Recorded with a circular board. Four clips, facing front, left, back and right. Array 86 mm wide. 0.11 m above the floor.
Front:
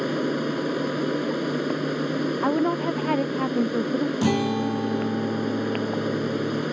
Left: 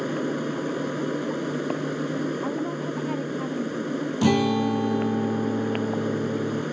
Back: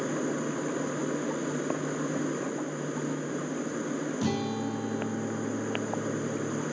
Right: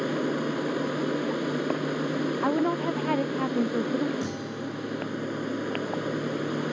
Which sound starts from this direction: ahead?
An aircraft, at 0.0 s.